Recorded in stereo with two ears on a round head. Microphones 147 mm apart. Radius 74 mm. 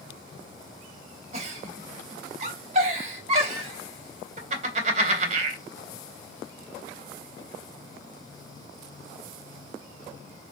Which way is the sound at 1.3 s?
40° right (ahead or behind).